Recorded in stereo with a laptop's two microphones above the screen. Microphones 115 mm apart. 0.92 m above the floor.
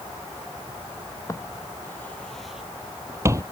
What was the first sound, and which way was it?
Footsteps, 25° left (ahead or behind).